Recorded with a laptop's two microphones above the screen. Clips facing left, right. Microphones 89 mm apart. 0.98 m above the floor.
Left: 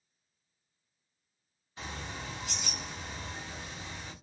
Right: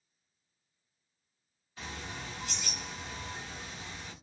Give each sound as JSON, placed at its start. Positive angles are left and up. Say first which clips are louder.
{"t": 1.8, "sound": "a bird", "louder": "left 1 dB", "side_deg": 20, "distance_m": 1.3}